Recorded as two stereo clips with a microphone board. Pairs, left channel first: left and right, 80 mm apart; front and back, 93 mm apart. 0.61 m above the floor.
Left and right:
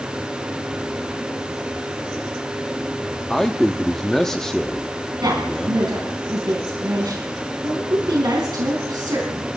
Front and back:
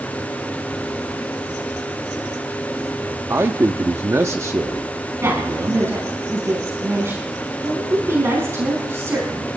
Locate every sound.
3.3 s a man speaking: 170° left, 0.8 m
5.2 s a woman speaking: 120° right, 4.5 m